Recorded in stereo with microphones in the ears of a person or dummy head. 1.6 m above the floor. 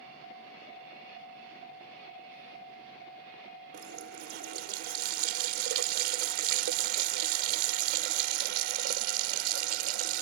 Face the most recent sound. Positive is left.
turn(degrees=-65)  # may be behind; listen again after turning